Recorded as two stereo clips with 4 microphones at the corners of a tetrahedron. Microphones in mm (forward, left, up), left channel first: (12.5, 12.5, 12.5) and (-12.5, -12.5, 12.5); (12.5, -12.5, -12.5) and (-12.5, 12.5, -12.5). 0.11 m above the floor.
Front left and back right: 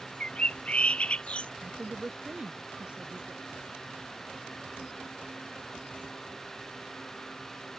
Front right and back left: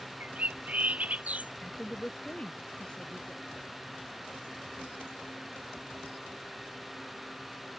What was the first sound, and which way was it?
A bird, 95° left.